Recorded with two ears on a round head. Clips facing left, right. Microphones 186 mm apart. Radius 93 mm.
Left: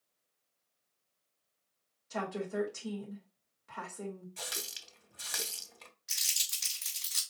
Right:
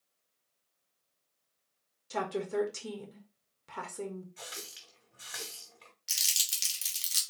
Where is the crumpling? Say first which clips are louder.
Right 2 dB; 35° right (ahead or behind), 1.8 m.